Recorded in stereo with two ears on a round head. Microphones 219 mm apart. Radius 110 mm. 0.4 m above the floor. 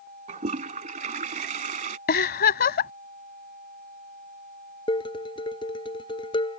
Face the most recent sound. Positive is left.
turn(degrees=20)  # may be behind; listen again after turning